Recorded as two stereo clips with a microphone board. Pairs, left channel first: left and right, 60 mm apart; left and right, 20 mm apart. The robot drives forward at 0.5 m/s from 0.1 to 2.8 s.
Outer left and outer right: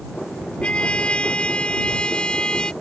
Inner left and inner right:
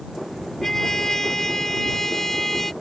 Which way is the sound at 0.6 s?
20° left (ahead or behind).